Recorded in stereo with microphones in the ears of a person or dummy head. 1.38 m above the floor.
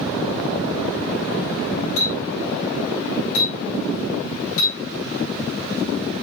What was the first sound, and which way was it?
A clink, 70° left (ahead or behind).